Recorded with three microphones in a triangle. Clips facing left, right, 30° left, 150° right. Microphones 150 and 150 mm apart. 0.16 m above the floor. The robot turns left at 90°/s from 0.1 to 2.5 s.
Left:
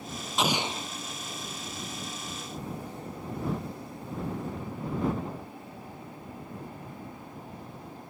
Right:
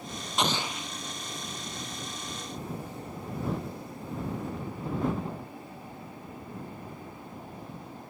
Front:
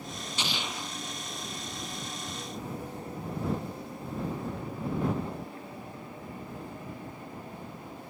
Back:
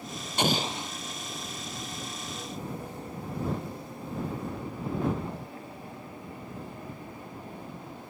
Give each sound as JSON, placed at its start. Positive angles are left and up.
{"t": 0.4, "sound": "an explosion", "azimuth_deg": 180}